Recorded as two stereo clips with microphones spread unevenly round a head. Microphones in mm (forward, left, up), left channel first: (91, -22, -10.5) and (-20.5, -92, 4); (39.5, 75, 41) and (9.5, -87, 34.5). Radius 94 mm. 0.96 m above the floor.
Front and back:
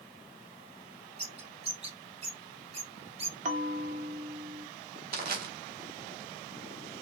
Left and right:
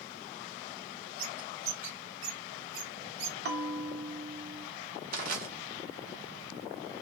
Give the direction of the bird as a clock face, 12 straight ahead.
4 o'clock.